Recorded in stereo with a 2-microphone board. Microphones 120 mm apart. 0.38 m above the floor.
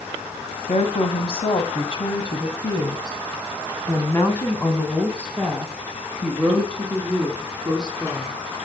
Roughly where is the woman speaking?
Left.